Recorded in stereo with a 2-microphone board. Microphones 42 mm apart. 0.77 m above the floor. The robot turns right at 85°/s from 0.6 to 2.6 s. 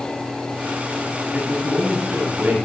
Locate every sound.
1.3 s a man speaking: 150° right, 5 m; by 2.5 s 45° right, 5 m